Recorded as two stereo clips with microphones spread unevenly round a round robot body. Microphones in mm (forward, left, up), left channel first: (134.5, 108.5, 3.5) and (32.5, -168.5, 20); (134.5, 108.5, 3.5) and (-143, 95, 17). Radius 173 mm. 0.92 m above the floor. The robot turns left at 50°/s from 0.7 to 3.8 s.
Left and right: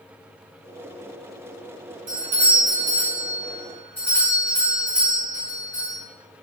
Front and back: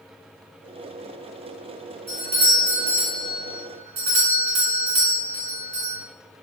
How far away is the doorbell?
About 0.9 m.